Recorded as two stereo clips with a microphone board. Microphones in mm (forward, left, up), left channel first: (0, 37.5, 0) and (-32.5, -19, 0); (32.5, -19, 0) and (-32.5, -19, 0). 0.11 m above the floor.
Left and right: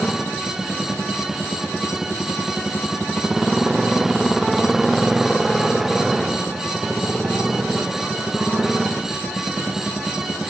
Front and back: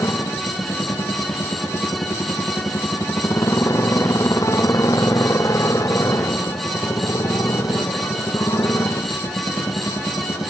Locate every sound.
0.0 s a motorcycle: 35° right